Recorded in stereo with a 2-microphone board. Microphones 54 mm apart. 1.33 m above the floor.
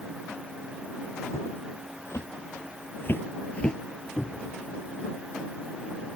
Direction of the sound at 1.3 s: 55° left (ahead or behind).